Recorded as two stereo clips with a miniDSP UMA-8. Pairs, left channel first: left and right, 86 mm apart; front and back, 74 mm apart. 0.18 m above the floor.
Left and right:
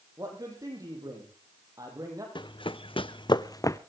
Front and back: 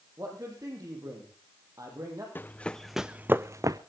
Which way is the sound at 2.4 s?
60° left.